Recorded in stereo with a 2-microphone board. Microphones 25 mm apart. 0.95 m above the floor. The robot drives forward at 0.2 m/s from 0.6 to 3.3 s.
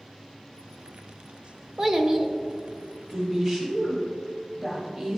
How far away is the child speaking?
About 0.7 m.